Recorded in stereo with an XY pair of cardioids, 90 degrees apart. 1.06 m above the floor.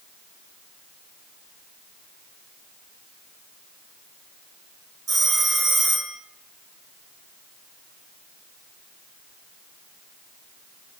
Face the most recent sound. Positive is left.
turn(degrees=-65)